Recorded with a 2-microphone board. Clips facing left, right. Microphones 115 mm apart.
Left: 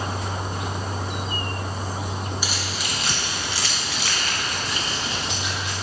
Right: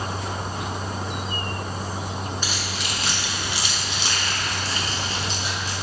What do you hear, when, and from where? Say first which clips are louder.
2.4 s keys jangling: even; 10° left (ahead or behind), 1.5 m; by 5.7 s 35° right (ahead or behind), 2 m